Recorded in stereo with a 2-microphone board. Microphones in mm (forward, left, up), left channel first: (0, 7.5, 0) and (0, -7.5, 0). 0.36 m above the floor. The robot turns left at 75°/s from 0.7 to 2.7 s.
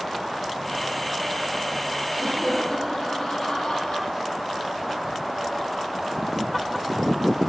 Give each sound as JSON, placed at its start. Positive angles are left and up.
{"t": 2.2, "sound": "laughter", "azimuth_deg": 100, "distance_m": 10.0}